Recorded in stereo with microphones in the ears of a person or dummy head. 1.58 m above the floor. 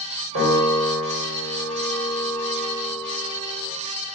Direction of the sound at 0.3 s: 65° right (ahead or behind).